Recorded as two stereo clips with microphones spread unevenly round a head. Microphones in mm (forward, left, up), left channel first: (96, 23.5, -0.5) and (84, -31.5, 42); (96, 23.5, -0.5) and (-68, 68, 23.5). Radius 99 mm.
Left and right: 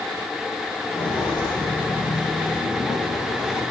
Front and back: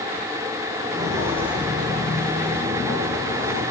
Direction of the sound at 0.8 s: 105° left.